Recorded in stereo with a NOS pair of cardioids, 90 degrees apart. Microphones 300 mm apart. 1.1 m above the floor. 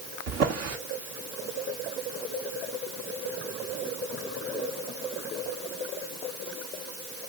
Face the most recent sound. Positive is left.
turn(degrees=-60)